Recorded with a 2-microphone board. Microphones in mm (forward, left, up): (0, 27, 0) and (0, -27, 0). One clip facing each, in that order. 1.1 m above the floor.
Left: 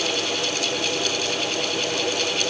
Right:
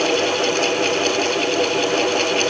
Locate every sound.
Only background noise.